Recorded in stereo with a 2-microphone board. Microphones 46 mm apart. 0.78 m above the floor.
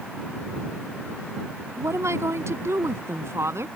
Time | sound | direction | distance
1.8 | a woman speaking | 85° right | ?